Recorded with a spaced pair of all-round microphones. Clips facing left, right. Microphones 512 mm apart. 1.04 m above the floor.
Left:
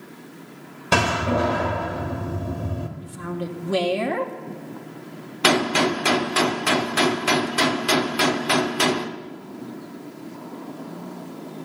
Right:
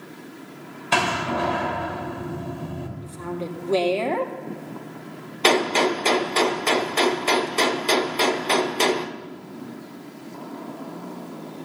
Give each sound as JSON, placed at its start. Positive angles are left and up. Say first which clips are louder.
{"t": 0.9, "sound": "a door slam", "louder": "left 4 dB", "side_deg": 60, "distance_m": 1.5}
{"t": 3.0, "sound": "a woman speaking", "louder": "right 1 dB", "side_deg": 35, "distance_m": 1.6}
{"t": 5.4, "sound": "a gunshot", "louder": "even", "side_deg": 35, "distance_m": 0.8}